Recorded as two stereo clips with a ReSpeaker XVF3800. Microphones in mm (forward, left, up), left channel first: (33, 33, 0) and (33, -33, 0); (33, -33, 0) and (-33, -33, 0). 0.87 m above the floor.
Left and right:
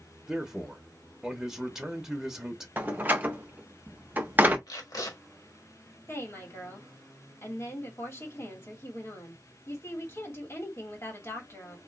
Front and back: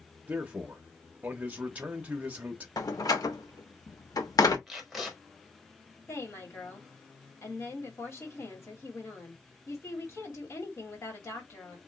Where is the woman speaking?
40° left, 2.5 m.